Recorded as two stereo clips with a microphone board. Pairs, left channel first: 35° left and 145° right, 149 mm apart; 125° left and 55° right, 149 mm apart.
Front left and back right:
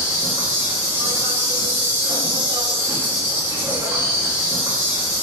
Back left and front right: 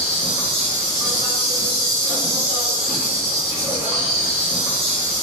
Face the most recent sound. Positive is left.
turn(degrees=-70)